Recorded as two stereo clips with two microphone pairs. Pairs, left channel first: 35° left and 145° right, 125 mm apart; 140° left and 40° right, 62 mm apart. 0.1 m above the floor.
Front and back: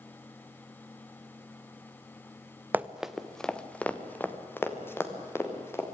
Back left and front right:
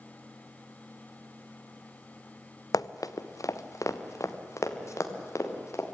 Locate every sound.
2.7 s running footsteps: 135° left, 0.8 m; by 5.8 s 105° left, 4 m